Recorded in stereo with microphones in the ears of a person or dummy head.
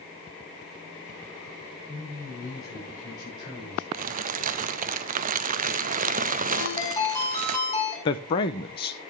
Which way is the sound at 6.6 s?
20° left (ahead or behind).